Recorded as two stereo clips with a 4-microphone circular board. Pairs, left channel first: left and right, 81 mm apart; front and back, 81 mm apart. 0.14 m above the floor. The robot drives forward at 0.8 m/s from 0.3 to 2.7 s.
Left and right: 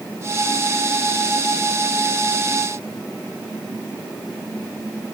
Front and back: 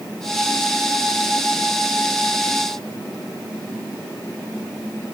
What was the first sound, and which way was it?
Only background noise.